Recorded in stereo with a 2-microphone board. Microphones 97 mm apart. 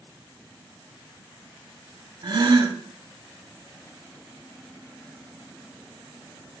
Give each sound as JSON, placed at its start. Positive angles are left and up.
{"t": 2.2, "sound": "a gasp", "side_deg": -55, "distance_m": 0.5}